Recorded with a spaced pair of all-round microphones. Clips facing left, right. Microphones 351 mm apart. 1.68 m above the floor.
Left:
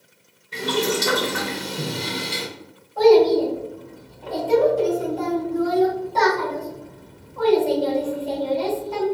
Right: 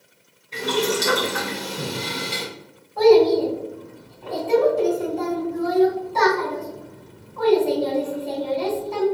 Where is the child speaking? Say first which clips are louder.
Even; 30° right (ahead or behind), 1.8 m.